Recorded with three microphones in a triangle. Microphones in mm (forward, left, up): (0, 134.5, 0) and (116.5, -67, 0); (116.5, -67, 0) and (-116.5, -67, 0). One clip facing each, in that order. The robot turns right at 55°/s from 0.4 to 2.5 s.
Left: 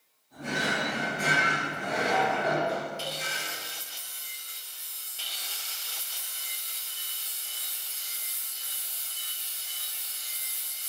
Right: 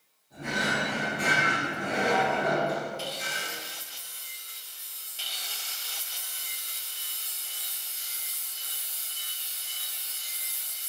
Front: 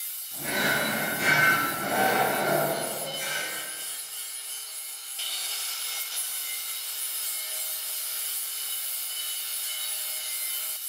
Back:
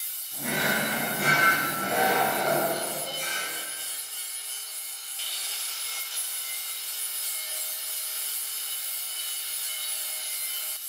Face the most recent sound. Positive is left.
turn(degrees=-85)